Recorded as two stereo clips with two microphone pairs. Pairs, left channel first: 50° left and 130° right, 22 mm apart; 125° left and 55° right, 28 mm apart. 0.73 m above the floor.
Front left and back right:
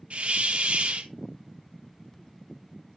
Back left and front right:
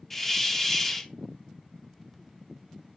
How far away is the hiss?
About 0.8 m.